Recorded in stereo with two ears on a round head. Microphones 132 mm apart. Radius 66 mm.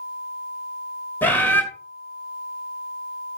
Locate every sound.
1.2 s a bird: 15° left (ahead or behind), 2.0 m